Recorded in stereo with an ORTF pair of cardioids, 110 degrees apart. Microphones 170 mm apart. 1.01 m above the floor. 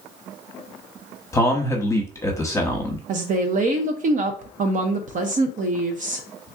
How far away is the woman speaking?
About 0.6 m.